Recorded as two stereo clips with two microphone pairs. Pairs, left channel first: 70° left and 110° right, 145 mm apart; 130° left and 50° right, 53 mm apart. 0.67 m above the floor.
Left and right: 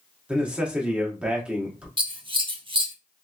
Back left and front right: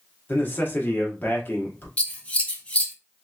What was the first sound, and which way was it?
A man speaking, 170° left.